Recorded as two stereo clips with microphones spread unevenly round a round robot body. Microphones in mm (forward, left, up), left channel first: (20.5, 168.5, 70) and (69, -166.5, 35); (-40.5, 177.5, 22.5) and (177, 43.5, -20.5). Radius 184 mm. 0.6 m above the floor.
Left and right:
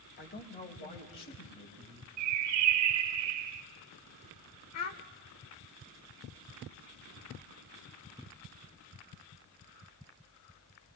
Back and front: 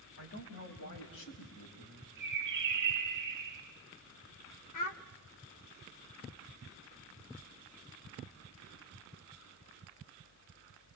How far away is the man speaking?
About 3.5 m.